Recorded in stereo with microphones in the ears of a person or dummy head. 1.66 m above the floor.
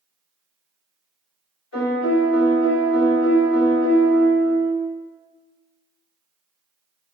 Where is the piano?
70° left (ahead or behind), 1.8 m.